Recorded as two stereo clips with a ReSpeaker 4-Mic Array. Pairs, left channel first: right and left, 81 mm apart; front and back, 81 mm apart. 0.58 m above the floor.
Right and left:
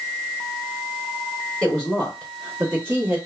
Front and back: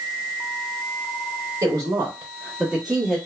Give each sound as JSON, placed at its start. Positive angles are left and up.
{"t": 1.6, "sound": "a woman speaking", "azimuth_deg": -170, "distance_m": 1.3}